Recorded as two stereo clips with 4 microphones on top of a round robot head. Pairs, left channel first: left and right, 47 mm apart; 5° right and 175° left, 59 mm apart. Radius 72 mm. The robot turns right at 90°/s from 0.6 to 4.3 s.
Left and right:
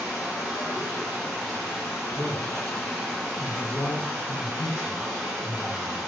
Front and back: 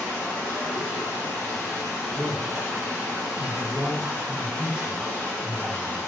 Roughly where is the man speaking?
Right.